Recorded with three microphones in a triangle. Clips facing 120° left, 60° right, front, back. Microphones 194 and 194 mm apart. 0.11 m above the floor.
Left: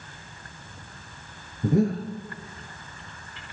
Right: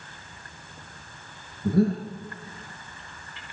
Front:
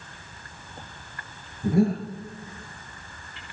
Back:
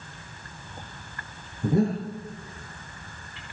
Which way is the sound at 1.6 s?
125° left.